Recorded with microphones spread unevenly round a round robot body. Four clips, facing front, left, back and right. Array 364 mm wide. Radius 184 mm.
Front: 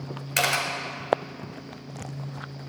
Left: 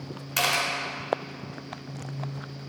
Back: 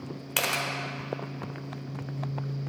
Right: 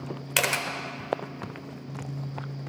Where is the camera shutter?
70° right, 0.6 m.